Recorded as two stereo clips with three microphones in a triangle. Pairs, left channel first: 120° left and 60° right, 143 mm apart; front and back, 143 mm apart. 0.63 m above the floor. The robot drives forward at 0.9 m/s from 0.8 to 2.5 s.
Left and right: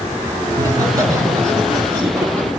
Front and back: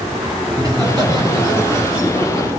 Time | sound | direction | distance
0.5 | laughter | 120° right | 8 m